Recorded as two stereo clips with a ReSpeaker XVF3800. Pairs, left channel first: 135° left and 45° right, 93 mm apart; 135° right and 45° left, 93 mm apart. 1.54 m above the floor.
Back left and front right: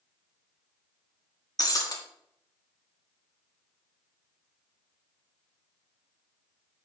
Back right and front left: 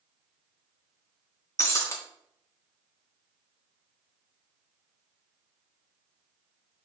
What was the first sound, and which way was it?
Breaking glass, 175° left.